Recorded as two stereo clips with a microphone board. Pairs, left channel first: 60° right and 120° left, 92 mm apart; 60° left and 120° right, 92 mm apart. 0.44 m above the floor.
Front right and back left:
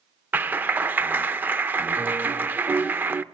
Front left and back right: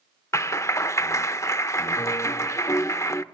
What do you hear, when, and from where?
0.3 s a clap: 70° left, 0.6 m